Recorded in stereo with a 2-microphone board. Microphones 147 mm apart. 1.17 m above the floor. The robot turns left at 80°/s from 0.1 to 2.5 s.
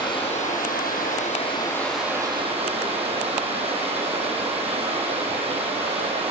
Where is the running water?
150° left, 4.5 m; by 6.3 s 45° right, 4.5 m.